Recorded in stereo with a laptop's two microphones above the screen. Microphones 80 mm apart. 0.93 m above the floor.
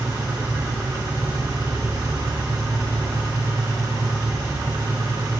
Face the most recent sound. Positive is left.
turn(degrees=-60)  # may be behind; listen again after turning